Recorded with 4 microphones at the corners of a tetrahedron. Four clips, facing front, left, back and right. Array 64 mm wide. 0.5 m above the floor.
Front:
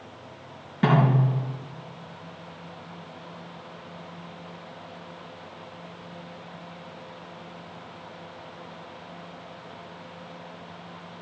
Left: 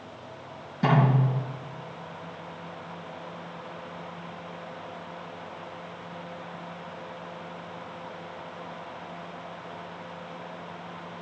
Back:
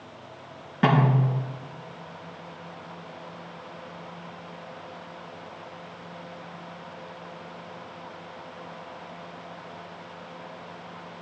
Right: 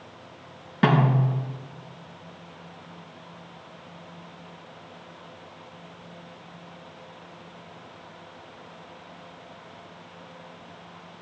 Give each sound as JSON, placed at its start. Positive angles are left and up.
{"t": 0.8, "sound": "a snare drum", "azimuth_deg": -110, "distance_m": 6.0}